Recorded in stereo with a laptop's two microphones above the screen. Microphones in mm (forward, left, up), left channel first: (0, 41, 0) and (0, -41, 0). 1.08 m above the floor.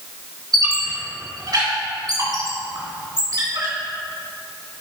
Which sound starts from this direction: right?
A squeak, at 0.5 s.